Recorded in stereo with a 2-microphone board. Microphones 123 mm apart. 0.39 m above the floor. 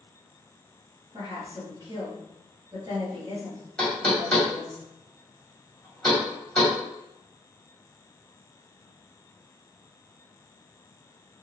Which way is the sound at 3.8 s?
10° left (ahead or behind).